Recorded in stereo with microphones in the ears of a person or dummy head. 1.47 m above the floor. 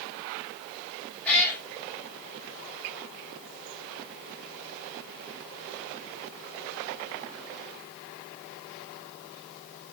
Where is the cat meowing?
5° left (ahead or behind), 4 m.